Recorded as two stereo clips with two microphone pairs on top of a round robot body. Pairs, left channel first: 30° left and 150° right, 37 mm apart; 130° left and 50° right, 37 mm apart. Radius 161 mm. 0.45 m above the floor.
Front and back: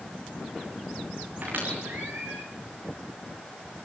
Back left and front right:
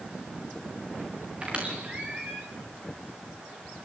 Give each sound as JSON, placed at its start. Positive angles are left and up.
{"t": 1.4, "sound": "a squeak", "azimuth_deg": -110, "distance_m": 3.5}